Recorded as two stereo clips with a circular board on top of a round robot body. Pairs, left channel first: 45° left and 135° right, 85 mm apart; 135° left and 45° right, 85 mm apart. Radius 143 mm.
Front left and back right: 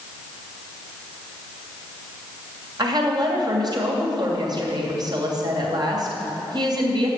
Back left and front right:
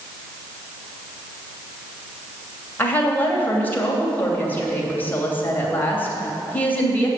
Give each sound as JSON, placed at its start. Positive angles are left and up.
{"t": 2.8, "sound": "a woman speaking", "azimuth_deg": -160, "distance_m": 2.5}